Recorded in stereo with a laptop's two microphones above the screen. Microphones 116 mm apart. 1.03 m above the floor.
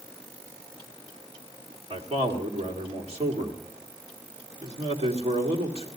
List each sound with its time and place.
1.9 s a man speaking: 55° right (ahead or behind), 1.9 m